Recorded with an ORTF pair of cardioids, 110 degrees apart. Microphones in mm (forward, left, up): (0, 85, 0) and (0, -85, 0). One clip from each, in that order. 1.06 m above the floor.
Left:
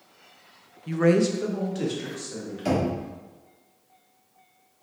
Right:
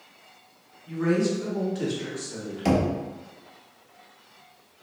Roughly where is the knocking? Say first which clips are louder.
Right 1 dB; ahead right.